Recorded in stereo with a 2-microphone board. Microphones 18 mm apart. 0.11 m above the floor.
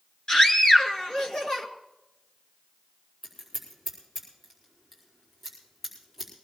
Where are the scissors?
5° left (ahead or behind), 4.5 m.